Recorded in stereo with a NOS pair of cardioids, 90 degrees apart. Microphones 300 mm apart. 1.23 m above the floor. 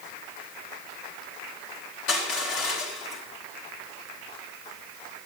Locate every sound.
2.1 s crushing: 60° left, 8.5 m